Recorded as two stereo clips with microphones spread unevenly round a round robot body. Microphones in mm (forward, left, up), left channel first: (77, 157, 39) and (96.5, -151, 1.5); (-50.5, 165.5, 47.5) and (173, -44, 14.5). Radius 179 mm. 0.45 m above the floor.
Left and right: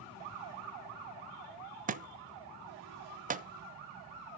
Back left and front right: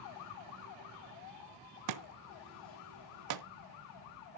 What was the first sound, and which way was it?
A thud, 20° right.